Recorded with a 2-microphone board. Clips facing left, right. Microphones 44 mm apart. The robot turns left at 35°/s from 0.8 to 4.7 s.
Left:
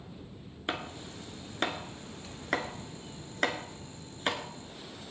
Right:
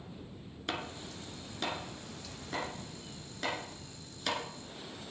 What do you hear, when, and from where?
0.7 s chopping: 20° left (ahead or behind), 1.6 m; by 4.4 s 30° left (ahead or behind), 1.6 m